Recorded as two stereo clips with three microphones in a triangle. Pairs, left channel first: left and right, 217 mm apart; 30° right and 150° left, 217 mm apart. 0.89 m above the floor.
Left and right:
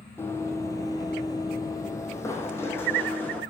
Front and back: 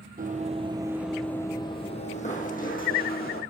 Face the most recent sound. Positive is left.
turn(degrees=10)